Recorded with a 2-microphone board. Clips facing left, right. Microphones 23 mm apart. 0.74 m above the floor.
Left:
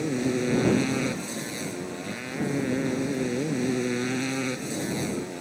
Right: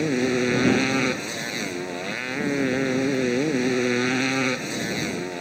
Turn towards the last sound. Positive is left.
turn(degrees=-35)  # may be behind; listen again after turning